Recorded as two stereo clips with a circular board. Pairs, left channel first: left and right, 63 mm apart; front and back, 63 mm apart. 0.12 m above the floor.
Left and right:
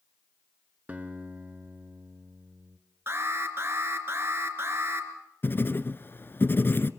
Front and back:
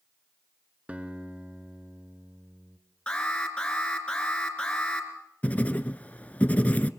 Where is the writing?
55° left, 0.7 m.